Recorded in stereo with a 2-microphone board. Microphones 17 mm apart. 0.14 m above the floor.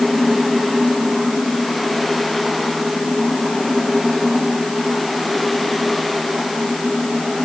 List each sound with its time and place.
Only background noise.